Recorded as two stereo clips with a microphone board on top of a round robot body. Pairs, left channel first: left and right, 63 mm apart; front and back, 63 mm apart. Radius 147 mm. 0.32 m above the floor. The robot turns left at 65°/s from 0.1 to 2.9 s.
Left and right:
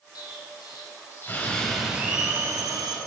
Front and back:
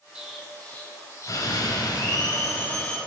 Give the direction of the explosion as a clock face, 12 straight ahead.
8 o'clock.